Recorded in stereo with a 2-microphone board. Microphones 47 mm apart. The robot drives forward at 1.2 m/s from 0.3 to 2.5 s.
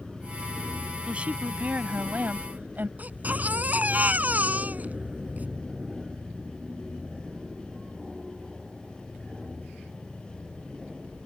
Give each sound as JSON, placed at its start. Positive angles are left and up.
{"t": 0.0, "sound": "an aircraft", "side_deg": -10}
{"t": 1.1, "sound": "a woman speaking", "side_deg": -25}
{"t": 3.0, "sound": "a baby crying", "side_deg": -35}